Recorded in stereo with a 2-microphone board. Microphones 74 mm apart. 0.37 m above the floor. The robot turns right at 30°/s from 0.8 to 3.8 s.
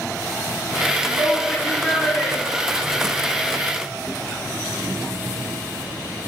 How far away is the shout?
About 7 m.